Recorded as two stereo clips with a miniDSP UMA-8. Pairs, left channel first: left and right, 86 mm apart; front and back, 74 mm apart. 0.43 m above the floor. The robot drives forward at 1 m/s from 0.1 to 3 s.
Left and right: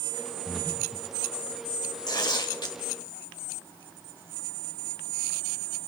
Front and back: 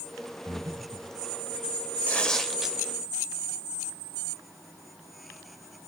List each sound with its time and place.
0.5 s breathing: 160° left, 2 m; by 1.1 s 165° left, 3 m
2.1 s tearing paper: 70° left, 1.4 m; by 2.8 s 105° left, 1.3 m